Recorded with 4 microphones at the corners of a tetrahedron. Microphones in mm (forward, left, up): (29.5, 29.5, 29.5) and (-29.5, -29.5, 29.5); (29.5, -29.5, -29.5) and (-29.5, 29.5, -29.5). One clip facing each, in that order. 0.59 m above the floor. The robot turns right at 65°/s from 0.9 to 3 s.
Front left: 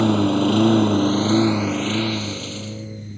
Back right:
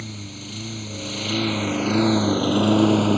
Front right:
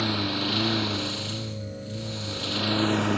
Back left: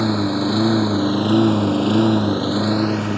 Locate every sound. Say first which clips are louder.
0.0 s a lawn mower: front left 20 dB, back left 9 dB; 70° left; by 3.2 s 135° right